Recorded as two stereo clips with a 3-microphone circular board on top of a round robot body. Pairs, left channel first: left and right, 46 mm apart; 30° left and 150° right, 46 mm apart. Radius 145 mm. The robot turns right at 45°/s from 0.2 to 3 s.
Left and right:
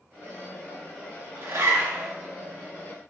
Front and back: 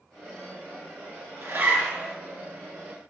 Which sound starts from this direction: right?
A zipper, at 1.4 s.